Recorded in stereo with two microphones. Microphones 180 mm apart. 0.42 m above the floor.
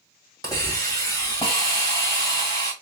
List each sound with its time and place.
0.4 s a hiss: 20° left (ahead or behind), 1.7 m